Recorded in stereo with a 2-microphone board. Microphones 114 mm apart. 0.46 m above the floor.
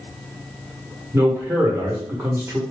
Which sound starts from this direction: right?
A man speaking, at 1.1 s.